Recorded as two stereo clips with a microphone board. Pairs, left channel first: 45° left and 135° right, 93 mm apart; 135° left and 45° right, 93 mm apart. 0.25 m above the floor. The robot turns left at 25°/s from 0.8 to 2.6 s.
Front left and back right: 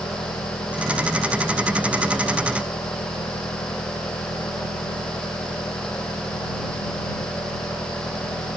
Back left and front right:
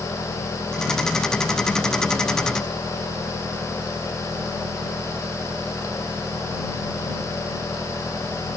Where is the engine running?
65° left; by 8.6 s 20° left.